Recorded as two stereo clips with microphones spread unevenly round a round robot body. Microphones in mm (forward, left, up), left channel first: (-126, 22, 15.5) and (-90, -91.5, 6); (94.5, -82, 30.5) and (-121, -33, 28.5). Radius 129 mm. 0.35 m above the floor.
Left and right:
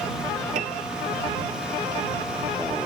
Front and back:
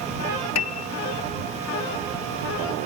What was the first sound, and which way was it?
A piano, 20° right.